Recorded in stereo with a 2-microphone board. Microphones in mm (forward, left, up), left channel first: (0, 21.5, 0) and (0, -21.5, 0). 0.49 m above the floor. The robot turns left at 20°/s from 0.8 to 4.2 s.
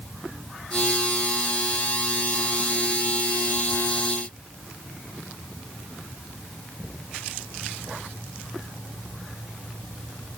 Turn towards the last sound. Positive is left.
No sound to turn to.